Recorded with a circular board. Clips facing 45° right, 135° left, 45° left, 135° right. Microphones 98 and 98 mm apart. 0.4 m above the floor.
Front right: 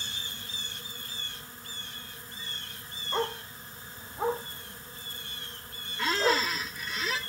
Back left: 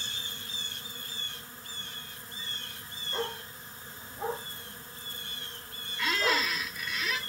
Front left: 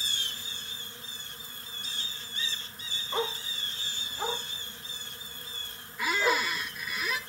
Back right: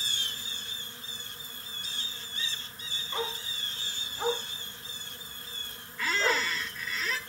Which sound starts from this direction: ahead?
A squeak, at 6.0 s.